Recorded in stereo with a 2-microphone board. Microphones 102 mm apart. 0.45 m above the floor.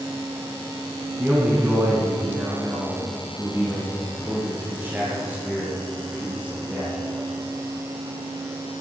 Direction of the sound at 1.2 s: 20° right (ahead or behind).